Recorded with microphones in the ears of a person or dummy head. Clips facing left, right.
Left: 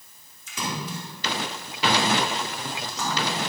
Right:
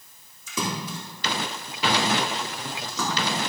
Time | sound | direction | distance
0.5 | a splash | 75° right (ahead or behind) | 2.5 m